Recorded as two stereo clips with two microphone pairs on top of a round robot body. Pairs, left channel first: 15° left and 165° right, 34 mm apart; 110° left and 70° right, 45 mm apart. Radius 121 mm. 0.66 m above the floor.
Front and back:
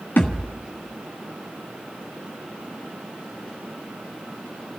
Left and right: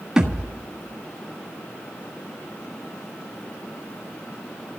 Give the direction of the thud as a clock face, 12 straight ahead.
12 o'clock.